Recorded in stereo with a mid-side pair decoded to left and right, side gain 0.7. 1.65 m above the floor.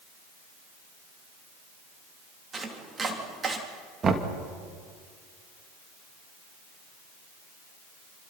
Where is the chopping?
25° right, 3 m.